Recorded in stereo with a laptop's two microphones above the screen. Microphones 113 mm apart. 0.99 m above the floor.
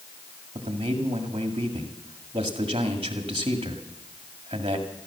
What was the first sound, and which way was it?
A man speaking, 45° right (ahead or behind).